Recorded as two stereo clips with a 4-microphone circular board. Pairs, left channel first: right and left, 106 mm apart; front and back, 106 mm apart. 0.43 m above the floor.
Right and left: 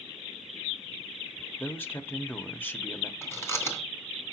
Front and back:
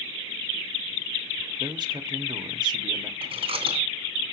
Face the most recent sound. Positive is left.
turn(degrees=-155)